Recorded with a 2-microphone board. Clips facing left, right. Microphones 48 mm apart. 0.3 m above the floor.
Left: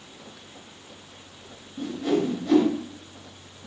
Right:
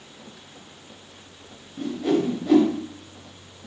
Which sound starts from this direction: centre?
A whoosh, at 1.8 s.